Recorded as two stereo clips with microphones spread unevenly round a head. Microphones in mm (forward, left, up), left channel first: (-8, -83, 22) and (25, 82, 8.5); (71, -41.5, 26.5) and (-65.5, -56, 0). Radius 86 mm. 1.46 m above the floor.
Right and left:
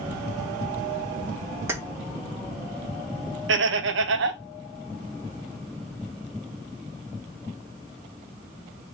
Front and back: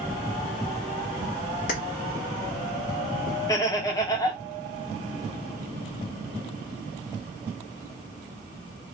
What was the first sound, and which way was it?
Keys jangling, straight ahead.